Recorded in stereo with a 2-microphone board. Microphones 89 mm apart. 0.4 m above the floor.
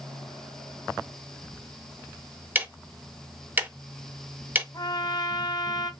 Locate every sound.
2.5 s ticking: 20° right (ahead or behind), 0.5 m
4.7 s a trumpet: 40° left (ahead or behind), 0.9 m